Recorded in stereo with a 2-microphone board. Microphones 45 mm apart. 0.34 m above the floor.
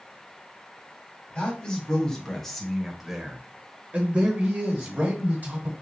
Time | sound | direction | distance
1.4 | a man speaking | 20° left (ahead or behind) | 1.8 m